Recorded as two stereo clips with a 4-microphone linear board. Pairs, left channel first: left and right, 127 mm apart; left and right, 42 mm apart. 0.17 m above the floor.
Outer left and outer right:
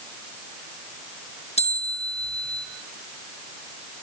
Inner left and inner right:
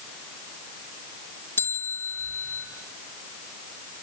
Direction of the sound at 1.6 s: 60° left (ahead or behind).